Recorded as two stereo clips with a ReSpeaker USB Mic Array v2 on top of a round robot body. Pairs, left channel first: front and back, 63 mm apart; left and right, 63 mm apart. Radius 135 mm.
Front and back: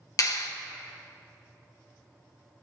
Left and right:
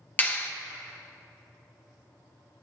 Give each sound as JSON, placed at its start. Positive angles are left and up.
{"t": 0.2, "sound": "a clap", "azimuth_deg": 25, "distance_m": 1.0}